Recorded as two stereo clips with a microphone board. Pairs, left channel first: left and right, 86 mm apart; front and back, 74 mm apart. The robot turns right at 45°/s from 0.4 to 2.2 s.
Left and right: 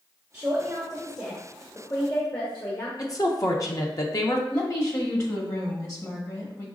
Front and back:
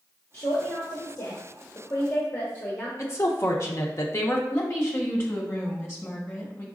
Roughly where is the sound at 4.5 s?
Ahead left.